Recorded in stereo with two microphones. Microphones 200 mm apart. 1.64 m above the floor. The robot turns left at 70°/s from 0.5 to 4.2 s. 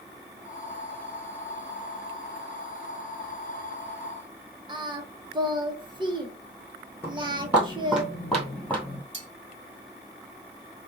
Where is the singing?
25° right (ahead or behind), 0.9 m.